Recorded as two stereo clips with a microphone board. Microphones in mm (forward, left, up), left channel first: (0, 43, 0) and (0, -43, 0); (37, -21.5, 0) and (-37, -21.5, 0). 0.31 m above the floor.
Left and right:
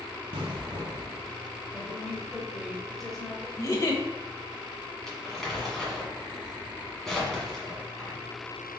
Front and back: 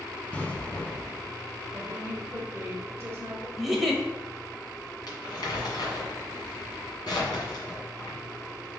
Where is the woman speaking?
170° left, 1.1 m.